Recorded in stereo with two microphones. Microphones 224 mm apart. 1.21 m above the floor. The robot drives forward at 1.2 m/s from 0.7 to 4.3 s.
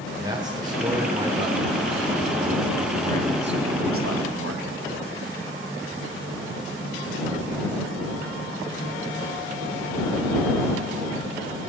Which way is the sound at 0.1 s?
20° right (ahead or behind).